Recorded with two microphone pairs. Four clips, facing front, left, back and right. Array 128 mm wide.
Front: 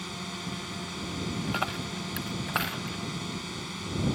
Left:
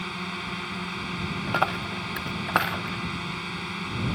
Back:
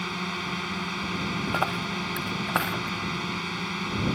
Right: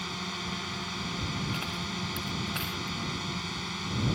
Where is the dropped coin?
105° left.